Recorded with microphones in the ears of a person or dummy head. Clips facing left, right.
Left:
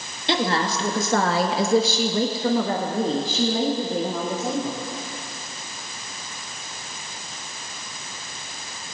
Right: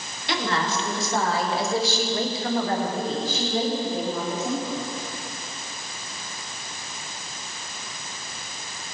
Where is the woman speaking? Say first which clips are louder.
Left 3 dB; 25° left (ahead or behind), 1.6 m; by 4.8 s 45° left (ahead or behind), 2.5 m.